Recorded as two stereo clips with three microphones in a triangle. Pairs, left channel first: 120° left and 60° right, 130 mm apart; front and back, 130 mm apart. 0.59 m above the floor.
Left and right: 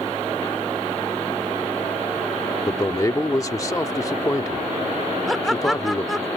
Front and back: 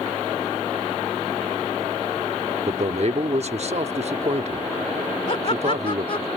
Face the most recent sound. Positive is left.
turn(degrees=30)